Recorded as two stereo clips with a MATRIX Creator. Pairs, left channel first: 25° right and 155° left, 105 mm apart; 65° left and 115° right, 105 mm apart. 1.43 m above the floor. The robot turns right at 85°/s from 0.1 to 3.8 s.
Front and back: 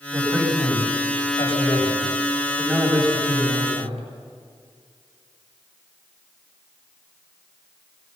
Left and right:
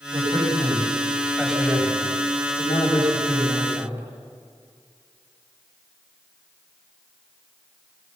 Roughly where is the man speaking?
Behind right.